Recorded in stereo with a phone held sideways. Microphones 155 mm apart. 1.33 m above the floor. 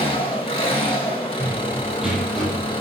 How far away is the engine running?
About 1.5 m.